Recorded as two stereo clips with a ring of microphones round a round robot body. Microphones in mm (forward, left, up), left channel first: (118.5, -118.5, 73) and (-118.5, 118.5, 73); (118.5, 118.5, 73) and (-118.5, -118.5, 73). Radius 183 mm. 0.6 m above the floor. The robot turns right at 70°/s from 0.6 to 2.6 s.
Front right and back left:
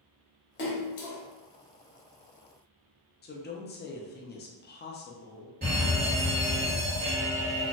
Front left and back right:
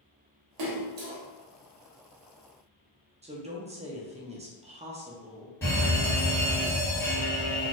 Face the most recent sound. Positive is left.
turn(degrees=120)